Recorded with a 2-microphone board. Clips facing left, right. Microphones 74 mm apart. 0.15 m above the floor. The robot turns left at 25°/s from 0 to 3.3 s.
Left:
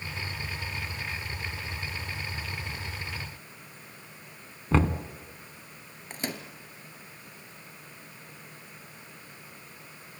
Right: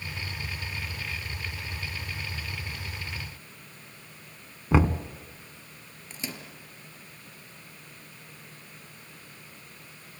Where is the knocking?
10° right (ahead or behind), 0.9 m.